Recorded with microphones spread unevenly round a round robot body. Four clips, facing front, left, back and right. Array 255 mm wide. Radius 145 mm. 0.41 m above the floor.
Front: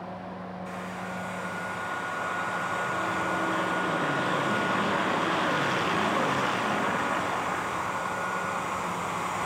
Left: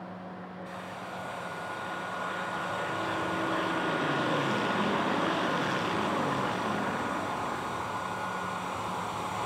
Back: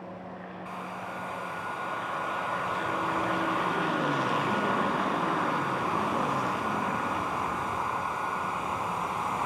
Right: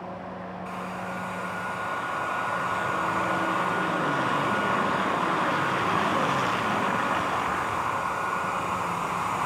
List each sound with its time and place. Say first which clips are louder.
0.7 s a hair dryer: right 7 dB, even; 115° right, 3 m